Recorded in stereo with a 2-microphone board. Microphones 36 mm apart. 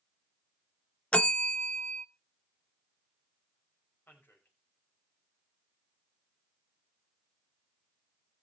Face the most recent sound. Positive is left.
turn(degrees=80)